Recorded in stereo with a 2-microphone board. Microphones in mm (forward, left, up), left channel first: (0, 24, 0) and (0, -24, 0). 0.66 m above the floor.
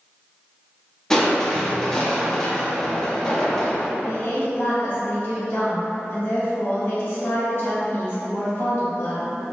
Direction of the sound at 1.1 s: 10° left (ahead or behind).